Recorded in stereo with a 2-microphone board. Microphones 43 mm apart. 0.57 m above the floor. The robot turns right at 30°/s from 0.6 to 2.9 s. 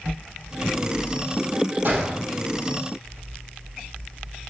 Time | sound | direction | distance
1.9 | a gunshot | 45° right (ahead or behind) | 4.5 m